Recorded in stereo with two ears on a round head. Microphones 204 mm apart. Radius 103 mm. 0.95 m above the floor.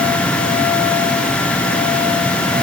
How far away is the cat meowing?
I don't hear a cat meowing.